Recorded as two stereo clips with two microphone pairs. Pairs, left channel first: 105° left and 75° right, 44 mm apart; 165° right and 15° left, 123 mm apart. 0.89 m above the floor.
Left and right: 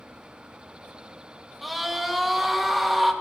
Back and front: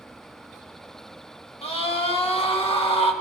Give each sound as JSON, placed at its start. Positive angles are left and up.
{"t": 1.6, "sound": "a scream", "azimuth_deg": -160, "distance_m": 1.4}